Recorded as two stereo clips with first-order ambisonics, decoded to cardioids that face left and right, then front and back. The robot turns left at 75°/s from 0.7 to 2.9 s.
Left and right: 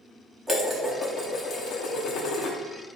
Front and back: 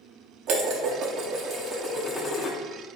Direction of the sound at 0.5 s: 170° right.